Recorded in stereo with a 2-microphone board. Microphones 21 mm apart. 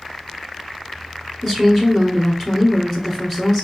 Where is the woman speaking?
20° left (ahead or behind), 1.4 m.